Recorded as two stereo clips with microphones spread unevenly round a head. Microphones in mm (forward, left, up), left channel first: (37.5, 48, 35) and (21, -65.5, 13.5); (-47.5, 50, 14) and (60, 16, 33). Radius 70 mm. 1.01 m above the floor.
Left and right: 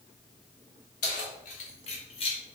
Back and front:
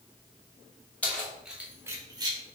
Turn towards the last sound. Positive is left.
turn(degrees=35)